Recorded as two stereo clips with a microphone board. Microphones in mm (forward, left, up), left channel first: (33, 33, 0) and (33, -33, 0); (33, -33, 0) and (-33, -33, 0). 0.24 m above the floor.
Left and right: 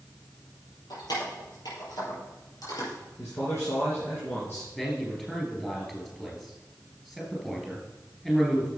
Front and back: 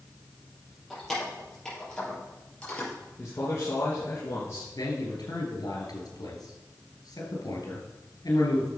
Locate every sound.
0.9 s keys jangling: 85° left, 5.5 m; by 2.9 s 70° left, 4 m
3.2 s a man speaking: 45° left, 3 m
4.8 s a man speaking: 5° left, 4 m